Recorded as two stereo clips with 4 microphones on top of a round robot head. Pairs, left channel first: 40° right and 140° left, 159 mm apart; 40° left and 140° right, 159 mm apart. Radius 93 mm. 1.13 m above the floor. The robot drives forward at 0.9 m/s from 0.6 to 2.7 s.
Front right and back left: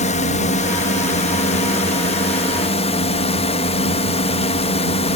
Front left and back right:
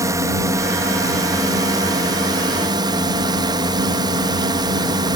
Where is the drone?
75° right; by 5.2 s 80° right.